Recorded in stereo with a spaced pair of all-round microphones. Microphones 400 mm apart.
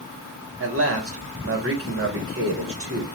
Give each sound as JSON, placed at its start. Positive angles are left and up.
{"t": 0.6, "sound": "a man speaking", "side_deg": -30, "distance_m": 1.6}